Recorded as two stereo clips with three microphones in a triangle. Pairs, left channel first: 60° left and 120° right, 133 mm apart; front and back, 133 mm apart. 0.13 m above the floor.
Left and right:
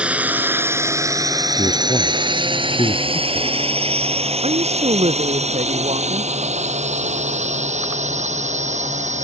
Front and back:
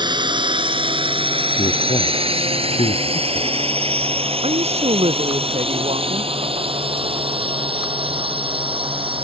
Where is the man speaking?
15° left.